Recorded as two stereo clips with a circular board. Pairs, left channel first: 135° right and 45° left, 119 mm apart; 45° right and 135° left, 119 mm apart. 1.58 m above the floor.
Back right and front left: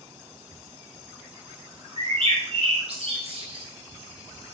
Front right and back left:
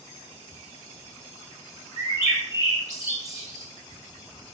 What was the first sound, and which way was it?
A bird, 75° left.